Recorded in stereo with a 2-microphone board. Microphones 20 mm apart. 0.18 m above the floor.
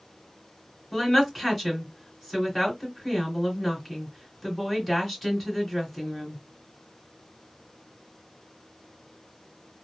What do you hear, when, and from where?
0.9 s a woman speaking: 5° left (ahead or behind), 2 m